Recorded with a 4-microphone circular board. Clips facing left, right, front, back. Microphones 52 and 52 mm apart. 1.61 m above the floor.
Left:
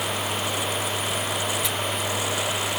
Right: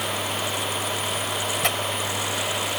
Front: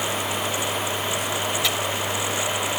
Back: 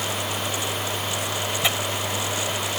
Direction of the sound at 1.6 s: 115° right.